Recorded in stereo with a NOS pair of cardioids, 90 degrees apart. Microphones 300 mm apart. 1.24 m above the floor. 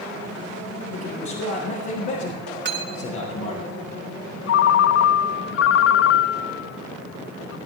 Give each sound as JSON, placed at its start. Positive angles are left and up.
{"t": 0.9, "sound": "a man speaking", "azimuth_deg": 70, "distance_m": 6.0}
{"t": 2.6, "sound": "cutlery clinking", "azimuth_deg": -35, "distance_m": 2.5}
{"t": 4.5, "sound": "a ringtone", "azimuth_deg": 50, "distance_m": 0.5}